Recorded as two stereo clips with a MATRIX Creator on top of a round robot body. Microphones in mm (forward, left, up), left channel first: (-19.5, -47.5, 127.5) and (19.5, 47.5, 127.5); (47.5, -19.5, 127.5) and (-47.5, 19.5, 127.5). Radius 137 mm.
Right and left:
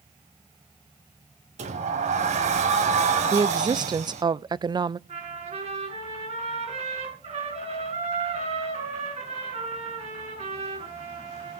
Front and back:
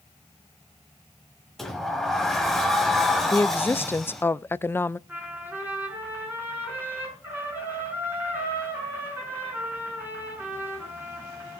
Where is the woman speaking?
40° left, 0.6 m.